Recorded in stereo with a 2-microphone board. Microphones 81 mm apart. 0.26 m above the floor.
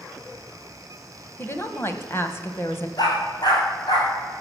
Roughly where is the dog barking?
Left.